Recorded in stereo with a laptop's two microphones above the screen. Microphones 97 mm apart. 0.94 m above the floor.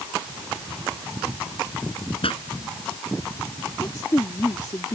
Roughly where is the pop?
Left.